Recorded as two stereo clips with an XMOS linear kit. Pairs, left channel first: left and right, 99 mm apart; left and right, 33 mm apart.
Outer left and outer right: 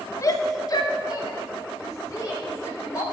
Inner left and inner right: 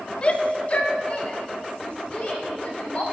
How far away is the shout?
About 0.5 m.